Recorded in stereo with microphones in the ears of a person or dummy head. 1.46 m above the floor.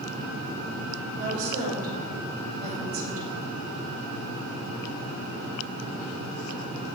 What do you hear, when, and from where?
1.2 s a woman speaking: 55° right (ahead or behind), 6 m